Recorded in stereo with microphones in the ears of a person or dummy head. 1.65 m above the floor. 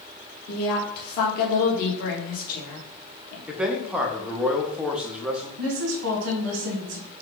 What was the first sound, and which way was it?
A woman speaking, 55° left (ahead or behind).